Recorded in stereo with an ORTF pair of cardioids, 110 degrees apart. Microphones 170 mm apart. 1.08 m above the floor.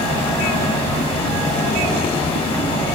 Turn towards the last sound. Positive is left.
turn(degrees=35)